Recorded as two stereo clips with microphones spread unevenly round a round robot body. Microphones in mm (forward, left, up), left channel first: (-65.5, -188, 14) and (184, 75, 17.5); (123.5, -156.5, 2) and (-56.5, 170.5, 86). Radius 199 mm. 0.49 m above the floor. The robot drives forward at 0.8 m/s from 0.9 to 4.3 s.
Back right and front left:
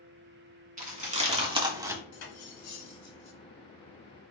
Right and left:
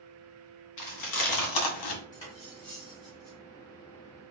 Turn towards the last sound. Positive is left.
turn(degrees=-160)